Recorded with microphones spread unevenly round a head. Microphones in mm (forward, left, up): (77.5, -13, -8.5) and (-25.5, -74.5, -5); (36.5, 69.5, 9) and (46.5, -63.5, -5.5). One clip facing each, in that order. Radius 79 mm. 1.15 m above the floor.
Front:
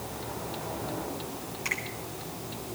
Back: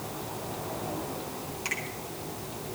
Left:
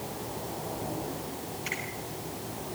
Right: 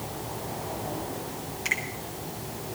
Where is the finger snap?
85° right, 8.5 m.